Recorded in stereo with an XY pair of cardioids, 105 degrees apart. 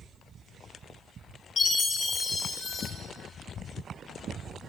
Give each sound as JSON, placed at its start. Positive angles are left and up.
{"t": 1.6, "sound": "a chime", "azimuth_deg": 50, "distance_m": 1.8}